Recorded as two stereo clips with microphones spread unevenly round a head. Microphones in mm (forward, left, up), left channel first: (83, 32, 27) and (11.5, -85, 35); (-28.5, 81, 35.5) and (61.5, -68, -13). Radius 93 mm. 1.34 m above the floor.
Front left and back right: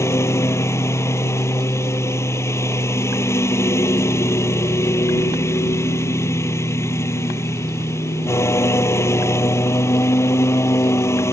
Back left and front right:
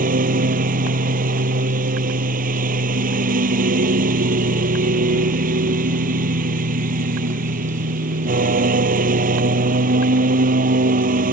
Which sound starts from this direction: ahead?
A lawn mower, at 0.0 s.